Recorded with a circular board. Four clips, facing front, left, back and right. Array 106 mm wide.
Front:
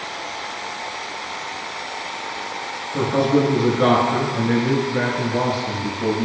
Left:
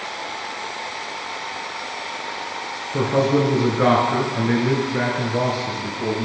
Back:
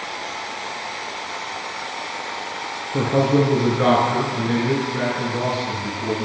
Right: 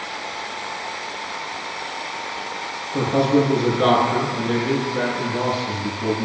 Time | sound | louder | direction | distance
2.9 | a man speaking | right 1 dB, even | 145° left | 1.5 m